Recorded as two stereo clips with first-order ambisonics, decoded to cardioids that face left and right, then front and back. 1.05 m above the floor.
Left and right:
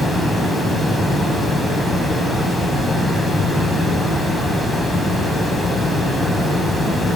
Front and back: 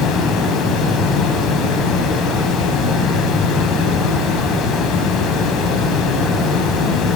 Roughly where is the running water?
Ahead.